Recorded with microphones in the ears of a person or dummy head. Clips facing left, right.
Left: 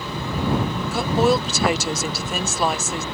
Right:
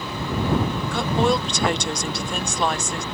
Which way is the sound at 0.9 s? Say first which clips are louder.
Left 3 dB; 5° left (ahead or behind).